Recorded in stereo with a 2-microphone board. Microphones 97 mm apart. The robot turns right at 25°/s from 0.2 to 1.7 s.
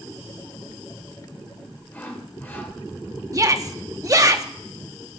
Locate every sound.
1.9 s sawing: 20° left (ahead or behind), 1.8 m
3.3 s a shout: 35° right (ahead or behind), 1.0 m